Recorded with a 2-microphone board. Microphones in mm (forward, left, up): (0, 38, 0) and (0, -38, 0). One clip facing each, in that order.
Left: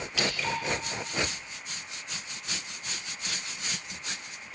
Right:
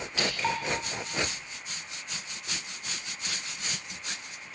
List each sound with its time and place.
0.2 s dripping: 40° right (ahead or behind), 1.9 m